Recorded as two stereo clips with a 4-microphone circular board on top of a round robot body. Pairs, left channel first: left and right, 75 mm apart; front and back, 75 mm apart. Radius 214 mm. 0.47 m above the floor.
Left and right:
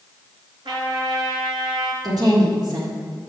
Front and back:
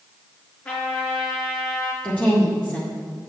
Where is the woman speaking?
70° right, 2.0 m.